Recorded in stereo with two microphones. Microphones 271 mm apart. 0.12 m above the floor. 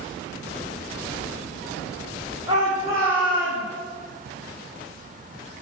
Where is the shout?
15° right (ahead or behind), 6 m; by 3.6 s centre (ahead or behind), 6 m.